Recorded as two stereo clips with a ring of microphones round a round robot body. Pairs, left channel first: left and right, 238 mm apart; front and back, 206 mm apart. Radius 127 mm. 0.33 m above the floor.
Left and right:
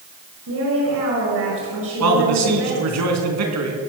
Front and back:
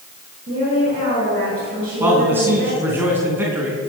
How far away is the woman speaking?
About 6 m.